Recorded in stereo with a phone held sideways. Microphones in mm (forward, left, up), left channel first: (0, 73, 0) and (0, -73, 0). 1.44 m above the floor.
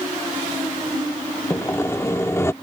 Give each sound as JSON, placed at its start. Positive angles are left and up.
{"t": 1.5, "sound": "sawing", "side_deg": 20}